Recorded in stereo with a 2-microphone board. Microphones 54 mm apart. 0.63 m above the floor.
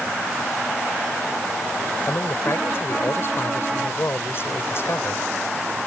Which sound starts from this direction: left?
A man speaking, at 2.1 s.